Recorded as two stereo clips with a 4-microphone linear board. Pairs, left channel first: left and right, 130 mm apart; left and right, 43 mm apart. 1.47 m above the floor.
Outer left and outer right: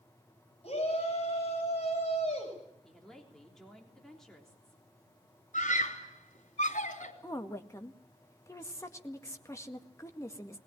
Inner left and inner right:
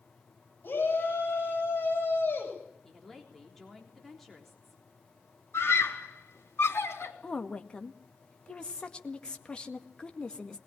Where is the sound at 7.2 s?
20° left (ahead or behind), 1.8 m.